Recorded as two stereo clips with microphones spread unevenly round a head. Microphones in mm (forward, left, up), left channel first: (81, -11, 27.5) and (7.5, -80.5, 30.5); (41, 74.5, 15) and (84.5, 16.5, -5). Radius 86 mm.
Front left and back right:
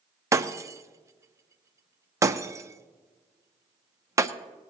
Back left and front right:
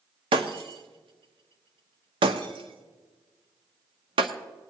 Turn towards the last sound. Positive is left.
turn(degrees=-75)